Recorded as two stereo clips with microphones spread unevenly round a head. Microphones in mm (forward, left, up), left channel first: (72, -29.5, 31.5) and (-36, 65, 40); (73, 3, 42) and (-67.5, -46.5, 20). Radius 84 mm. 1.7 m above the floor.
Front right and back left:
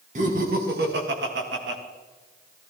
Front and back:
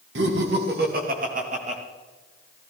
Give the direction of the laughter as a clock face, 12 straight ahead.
6 o'clock.